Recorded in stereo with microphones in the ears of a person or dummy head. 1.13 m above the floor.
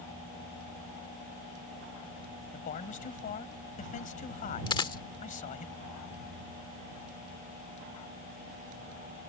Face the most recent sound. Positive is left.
turn(degrees=25)  # may be behind; listen again after turning